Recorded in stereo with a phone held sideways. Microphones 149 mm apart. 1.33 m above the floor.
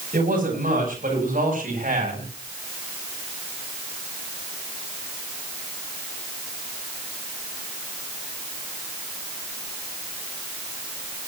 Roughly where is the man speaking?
Right.